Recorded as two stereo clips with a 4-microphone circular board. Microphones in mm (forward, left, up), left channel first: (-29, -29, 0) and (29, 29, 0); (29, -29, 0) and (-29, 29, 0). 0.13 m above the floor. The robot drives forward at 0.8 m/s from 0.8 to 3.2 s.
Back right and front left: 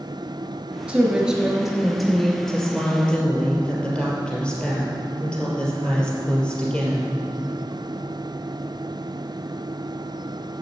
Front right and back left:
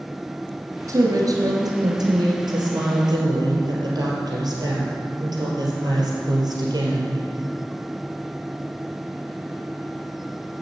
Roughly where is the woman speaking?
Behind left.